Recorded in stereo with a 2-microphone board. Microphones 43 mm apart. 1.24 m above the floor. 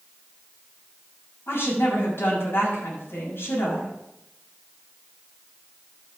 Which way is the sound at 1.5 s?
65° left (ahead or behind).